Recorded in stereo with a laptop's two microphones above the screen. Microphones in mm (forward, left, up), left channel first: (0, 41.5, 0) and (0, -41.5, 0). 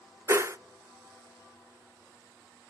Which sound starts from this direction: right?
A whoosh, at 0.3 s.